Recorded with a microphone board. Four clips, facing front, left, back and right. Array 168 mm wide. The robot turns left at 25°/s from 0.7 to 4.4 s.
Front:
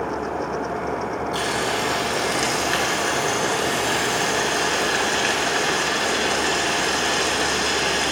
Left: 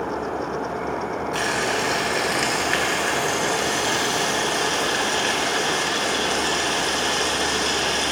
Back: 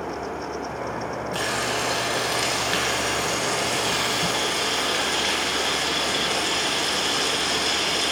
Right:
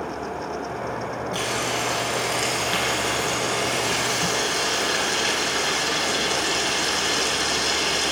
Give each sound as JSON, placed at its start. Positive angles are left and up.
{"t": 1.3, "sound": "frying", "azimuth_deg": 100, "distance_m": 1.8}